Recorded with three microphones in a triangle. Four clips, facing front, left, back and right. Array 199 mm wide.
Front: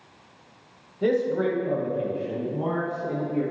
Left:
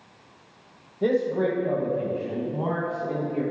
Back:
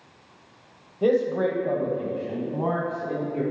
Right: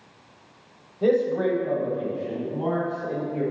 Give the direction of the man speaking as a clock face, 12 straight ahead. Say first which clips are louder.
Right 2 dB, back 1 dB; 6 o'clock.